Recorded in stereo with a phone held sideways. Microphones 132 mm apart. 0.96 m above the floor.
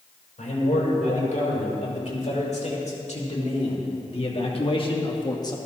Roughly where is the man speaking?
Left.